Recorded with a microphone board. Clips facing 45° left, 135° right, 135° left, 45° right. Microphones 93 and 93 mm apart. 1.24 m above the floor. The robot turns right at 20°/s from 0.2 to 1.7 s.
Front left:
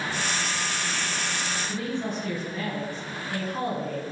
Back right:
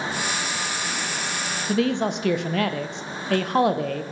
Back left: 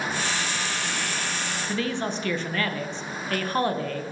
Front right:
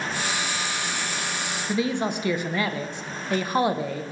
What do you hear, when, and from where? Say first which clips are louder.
1.7 s a man speaking: back right 11 dB, front right 4 dB; 120° right, 0.5 m